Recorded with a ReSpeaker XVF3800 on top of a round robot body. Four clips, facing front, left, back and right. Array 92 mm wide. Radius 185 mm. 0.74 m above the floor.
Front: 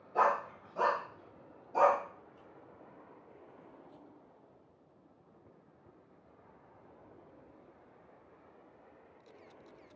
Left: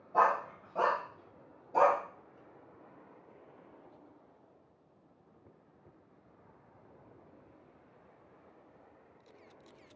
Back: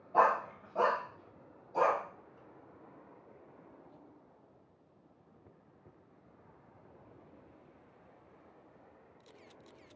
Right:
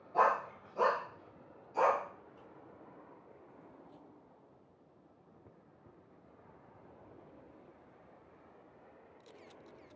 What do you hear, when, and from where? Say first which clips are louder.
0.1 s a dog barking: left 2 dB, back 2 dB; 160° left, 1.6 m; by 2.0 s 65° left, 1.4 m